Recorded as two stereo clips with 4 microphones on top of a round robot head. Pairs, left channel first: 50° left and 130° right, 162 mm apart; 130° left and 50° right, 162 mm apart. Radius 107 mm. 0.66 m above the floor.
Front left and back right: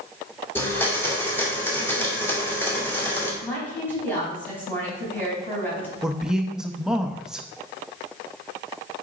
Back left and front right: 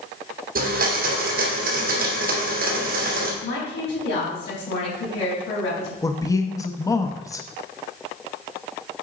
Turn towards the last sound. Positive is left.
turn(degrees=150)